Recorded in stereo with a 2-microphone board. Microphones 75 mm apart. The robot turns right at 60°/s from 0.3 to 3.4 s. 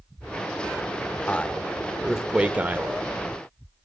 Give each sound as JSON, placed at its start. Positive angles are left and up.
{"t": 1.3, "sound": "a man speaking", "side_deg": 20, "distance_m": 0.8}